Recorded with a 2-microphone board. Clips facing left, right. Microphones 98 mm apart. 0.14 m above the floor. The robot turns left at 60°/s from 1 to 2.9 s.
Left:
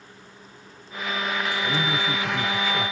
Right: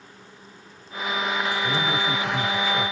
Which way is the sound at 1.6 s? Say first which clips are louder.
Right 1 dB; 10° right (ahead or behind).